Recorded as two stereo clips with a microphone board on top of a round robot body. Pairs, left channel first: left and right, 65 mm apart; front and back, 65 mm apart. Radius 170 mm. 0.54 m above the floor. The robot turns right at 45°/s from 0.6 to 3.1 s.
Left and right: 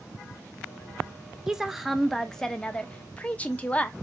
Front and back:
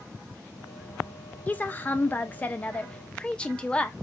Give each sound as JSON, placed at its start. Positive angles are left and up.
{"t": 1.5, "sound": "a woman speaking", "azimuth_deg": -20, "distance_m": 0.6}